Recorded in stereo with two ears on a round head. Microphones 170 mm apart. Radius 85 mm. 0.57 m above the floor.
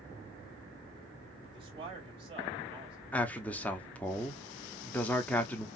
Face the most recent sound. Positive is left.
turn(degrees=10)  # may be behind; listen again after turning